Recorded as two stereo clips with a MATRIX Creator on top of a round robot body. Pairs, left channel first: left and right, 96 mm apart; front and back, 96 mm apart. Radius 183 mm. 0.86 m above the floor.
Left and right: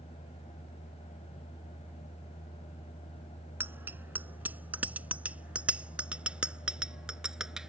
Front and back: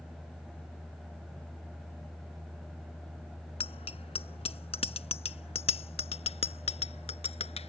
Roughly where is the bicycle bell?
Ahead.